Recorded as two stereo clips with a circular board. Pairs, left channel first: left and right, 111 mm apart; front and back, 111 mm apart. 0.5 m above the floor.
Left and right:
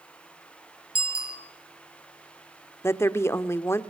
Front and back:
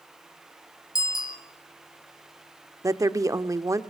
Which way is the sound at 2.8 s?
140° left.